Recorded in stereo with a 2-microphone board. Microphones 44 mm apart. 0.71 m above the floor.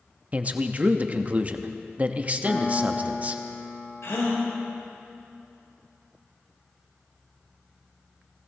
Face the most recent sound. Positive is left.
turn(degrees=70)  # may be behind; listen again after turning